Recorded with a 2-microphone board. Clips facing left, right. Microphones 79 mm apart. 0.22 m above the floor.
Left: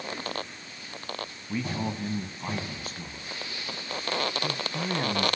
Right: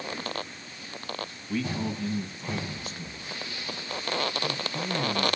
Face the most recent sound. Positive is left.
turn(degrees=70)  # may be behind; listen again after turning